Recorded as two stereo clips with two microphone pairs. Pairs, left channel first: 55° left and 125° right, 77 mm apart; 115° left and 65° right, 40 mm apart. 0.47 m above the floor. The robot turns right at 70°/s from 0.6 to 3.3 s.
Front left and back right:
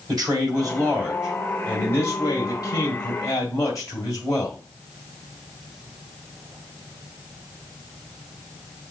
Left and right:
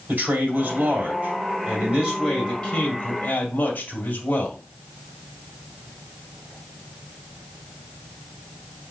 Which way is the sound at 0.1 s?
95° right.